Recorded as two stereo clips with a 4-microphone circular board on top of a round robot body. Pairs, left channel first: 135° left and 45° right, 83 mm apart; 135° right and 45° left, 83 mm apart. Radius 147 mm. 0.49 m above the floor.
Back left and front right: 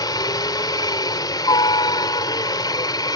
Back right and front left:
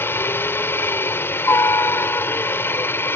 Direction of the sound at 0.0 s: 165° left.